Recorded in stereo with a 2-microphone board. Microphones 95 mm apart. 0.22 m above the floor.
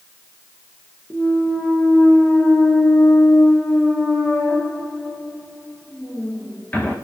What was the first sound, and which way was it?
A clunk, 20° left (ahead or behind).